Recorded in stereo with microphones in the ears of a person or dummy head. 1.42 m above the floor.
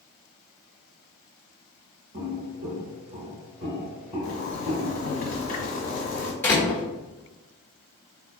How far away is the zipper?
About 1.1 m.